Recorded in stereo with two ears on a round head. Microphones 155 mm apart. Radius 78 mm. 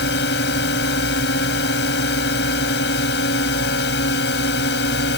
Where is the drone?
65° left (ahead or behind).